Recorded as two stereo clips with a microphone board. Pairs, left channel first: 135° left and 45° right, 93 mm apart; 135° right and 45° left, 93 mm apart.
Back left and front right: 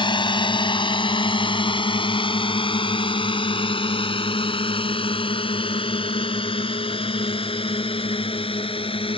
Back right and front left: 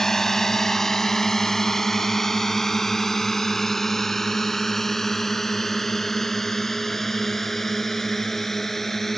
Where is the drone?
140° left.